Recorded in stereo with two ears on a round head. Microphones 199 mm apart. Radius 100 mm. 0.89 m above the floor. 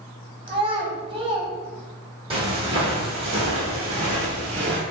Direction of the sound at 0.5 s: 25° right (ahead or behind).